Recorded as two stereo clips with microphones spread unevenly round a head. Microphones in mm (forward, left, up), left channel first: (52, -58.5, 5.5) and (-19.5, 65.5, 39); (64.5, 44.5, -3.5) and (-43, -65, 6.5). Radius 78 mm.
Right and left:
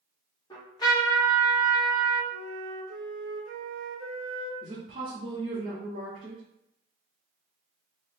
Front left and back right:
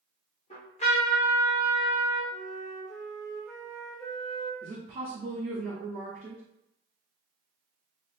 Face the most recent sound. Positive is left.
turn(degrees=170)